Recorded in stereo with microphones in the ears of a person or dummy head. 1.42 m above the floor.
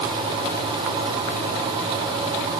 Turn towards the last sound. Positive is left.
No sound to turn to.